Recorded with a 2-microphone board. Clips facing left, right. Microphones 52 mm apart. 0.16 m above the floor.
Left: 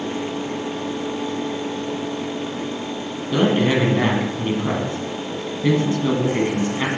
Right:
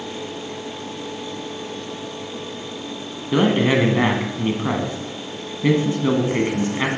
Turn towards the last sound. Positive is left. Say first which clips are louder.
# right 1 dB
turn(degrees=-20)  # may be behind; listen again after turning